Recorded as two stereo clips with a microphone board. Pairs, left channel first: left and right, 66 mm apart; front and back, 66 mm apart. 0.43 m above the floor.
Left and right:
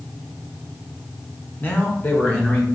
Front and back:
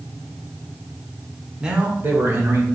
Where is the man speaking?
110° left, 0.9 m; by 2.7 s 150° left, 1.4 m.